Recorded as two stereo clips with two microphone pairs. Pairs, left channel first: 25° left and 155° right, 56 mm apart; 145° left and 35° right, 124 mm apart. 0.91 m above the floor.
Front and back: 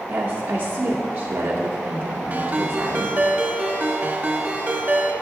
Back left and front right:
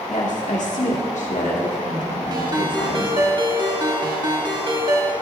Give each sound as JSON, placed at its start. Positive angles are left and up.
{"t": 0.1, "sound": "a woman speaking", "azimuth_deg": 155, "distance_m": 2.0}
{"t": 2.3, "sound": "a ringtone", "azimuth_deg": -90, "distance_m": 1.0}